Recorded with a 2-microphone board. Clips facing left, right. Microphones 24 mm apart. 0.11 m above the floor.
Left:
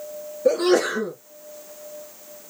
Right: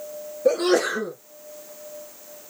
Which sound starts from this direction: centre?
A sneeze, at 0.5 s.